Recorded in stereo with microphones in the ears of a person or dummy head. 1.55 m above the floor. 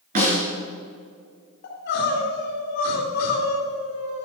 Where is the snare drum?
45° right (ahead or behind), 3.5 m.